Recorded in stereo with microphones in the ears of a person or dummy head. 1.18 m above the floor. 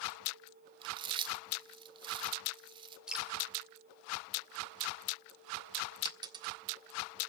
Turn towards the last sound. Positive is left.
turn(degrees=-25)  # may be behind; listen again after turning